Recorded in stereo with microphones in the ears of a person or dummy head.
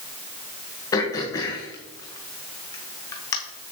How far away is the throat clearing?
About 1.1 m.